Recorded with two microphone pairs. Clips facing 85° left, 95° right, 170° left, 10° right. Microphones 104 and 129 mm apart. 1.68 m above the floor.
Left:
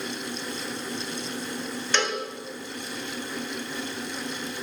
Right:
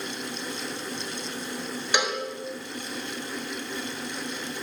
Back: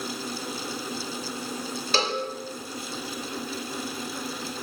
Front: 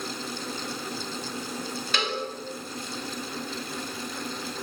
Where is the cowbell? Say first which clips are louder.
Even, back 4 dB; 165° right, 1.9 m.